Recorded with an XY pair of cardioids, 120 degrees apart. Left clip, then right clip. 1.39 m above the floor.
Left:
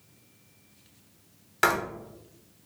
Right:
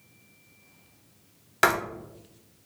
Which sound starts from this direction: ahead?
Writing, at 1.6 s.